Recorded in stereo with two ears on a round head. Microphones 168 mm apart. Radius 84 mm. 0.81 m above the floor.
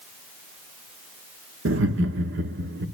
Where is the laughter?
70° right (ahead or behind), 1.5 m; by 2.9 s 55° right (ahead or behind), 1.6 m.